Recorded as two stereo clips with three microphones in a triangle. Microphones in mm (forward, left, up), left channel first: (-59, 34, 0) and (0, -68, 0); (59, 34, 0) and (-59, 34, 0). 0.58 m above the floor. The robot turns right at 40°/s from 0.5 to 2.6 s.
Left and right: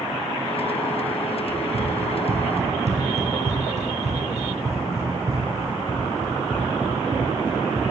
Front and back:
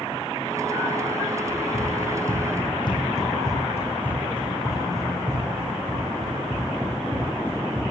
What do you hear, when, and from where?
1.5 s running footsteps: 65° right, 2.5 m; by 7.8 s 115° right, 4 m